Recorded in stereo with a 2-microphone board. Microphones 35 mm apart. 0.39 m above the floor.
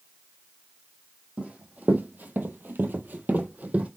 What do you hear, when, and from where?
1.4 s running footsteps: 35° right (ahead or behind), 1.0 m; by 3.9 s 40° right (ahead or behind), 0.9 m